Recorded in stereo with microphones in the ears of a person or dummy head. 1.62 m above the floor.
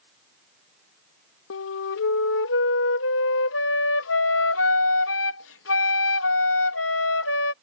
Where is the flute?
65° left (ahead or behind).